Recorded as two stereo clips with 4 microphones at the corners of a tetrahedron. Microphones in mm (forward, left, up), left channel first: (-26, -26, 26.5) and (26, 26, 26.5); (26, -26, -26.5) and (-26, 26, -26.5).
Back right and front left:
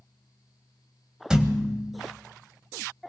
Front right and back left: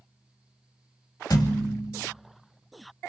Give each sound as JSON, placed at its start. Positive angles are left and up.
{"t": 1.3, "sound": "a thud", "azimuth_deg": -35, "distance_m": 1.1}